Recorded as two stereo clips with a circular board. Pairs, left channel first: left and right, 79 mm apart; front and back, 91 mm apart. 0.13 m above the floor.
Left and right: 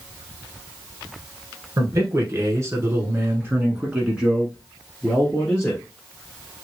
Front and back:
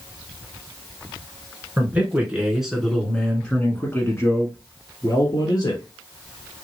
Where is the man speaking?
115° right, 1.7 m; by 5.8 s 15° left, 1.8 m.